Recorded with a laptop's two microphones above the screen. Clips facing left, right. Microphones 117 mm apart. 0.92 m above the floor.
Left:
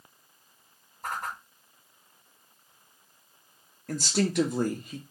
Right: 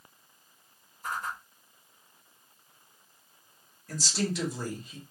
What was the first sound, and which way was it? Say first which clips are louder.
A whoosh: left 1 dB; 60° left (ahead or behind).